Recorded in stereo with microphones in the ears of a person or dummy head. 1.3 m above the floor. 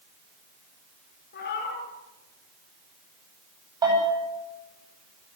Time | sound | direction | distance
1.3 | a cat meowing | 55° left (ahead or behind) | 5.5 m
3.8 | a bell | 20° right (ahead or behind) | 10 m